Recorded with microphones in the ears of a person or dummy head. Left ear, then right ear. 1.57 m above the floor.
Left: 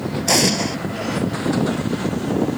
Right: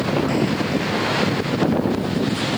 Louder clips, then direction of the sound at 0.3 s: Left 4 dB; 75° left (ahead or behind).